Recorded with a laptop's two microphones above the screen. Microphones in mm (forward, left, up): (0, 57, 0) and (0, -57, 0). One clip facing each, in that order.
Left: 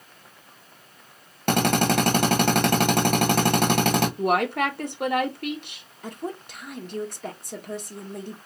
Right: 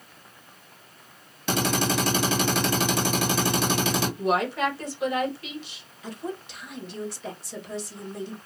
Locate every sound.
1.5 s a drill: 60° left (ahead or behind), 1.2 m
4.2 s a woman speaking: 60° left (ahead or behind), 1.2 m
6.0 s a woman speaking: 50° left (ahead or behind), 1.2 m